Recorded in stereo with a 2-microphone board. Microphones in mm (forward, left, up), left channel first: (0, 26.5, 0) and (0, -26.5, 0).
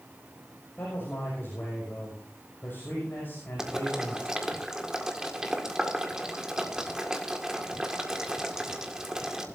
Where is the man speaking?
45° left (ahead or behind), 5.5 m.